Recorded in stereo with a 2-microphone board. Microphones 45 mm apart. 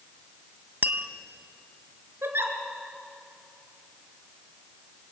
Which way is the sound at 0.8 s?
50° right (ahead or behind).